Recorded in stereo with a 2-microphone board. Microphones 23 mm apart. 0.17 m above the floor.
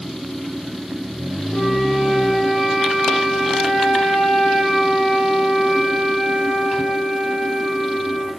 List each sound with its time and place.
1.5 s a flute: 80° left, 8.5 m